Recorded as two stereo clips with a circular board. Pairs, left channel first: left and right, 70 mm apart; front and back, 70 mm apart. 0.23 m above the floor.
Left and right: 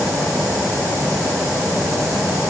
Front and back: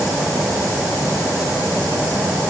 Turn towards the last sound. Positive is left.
No sound to turn to.